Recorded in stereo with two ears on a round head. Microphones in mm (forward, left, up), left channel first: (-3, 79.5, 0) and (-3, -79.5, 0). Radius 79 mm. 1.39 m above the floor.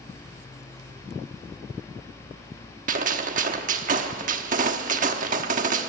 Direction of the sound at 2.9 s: 45° right (ahead or behind).